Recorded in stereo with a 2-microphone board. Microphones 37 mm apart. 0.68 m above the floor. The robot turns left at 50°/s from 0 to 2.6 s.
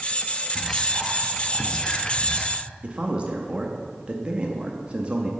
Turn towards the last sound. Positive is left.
turn(degrees=-30)  # may be behind; listen again after turning